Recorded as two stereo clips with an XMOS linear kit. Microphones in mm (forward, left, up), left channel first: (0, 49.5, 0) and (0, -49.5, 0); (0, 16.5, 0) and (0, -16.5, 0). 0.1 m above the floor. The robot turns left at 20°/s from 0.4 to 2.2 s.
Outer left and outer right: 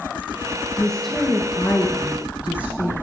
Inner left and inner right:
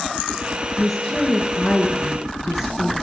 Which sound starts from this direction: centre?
A woman speaking, at 0.8 s.